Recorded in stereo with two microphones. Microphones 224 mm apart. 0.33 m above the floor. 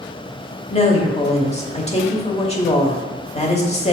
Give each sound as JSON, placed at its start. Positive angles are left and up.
{"t": 0.7, "sound": "a woman speaking", "side_deg": 30, "distance_m": 1.0}